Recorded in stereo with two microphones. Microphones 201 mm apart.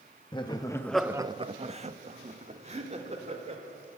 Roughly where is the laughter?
Left.